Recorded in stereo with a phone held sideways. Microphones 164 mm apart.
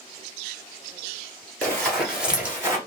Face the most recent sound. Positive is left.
turn(degrees=-15)  # may be behind; listen again after turning